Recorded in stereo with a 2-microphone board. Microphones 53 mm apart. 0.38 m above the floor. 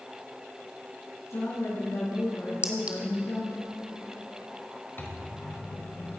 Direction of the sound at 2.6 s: 25° right (ahead or behind).